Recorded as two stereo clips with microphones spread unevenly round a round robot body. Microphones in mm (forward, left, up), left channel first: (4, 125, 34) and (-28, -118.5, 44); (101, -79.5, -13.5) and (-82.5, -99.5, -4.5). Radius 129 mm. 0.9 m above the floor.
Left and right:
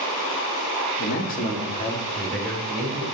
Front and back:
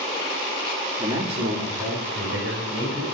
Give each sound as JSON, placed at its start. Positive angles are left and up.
{"t": 1.0, "sound": "a man speaking", "azimuth_deg": 120, "distance_m": 1.3}